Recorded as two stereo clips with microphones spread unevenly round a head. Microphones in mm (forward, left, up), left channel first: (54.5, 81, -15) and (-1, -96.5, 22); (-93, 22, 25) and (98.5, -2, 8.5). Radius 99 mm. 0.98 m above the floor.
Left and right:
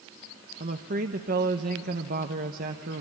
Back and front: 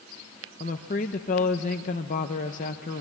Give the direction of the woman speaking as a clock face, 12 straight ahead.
5 o'clock.